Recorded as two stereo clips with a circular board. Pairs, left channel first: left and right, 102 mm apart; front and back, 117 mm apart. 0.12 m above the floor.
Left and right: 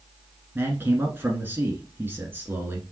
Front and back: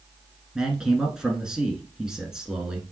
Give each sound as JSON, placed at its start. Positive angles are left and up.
{"t": 0.6, "sound": "a man speaking", "azimuth_deg": -105, "distance_m": 1.1}